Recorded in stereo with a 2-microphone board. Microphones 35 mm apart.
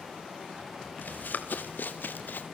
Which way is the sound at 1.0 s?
65° left (ahead or behind).